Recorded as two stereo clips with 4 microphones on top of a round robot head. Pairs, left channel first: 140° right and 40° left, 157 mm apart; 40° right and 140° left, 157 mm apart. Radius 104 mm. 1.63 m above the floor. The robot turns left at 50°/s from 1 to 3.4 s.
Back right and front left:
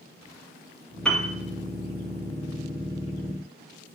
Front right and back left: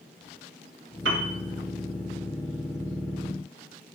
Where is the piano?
135° left, 1.6 m; by 1.4 s 120° left, 1.6 m.